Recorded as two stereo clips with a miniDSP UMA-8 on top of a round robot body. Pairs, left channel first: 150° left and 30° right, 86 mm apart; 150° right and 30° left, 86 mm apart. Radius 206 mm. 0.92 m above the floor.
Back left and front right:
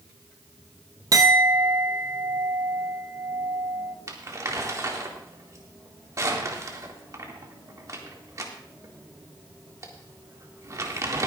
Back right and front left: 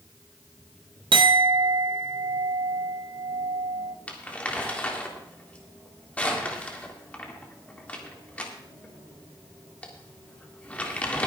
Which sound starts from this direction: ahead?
A clink, at 1.1 s.